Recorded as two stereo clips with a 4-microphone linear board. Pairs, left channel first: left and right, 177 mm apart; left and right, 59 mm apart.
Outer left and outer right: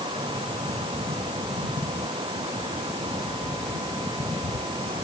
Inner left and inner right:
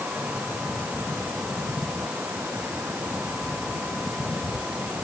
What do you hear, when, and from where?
Only background noise.